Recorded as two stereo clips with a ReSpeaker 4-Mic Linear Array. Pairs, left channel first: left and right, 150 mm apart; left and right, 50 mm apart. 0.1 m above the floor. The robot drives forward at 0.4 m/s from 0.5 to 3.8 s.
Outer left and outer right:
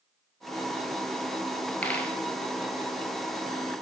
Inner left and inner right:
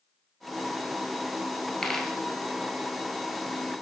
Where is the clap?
I don't hear a clap.